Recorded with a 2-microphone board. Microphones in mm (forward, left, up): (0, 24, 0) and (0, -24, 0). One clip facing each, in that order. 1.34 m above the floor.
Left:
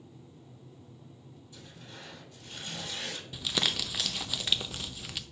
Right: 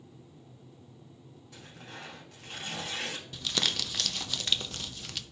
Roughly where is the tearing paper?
Right.